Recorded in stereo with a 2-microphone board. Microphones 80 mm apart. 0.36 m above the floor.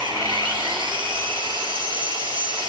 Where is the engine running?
85° right, 4 m.